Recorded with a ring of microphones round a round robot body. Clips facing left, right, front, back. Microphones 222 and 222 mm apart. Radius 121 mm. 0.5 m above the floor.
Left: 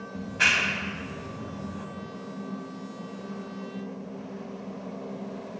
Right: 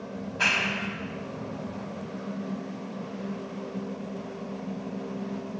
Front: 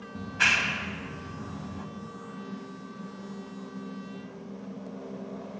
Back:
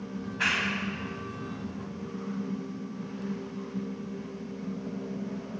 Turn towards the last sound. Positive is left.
turn(degrees=20)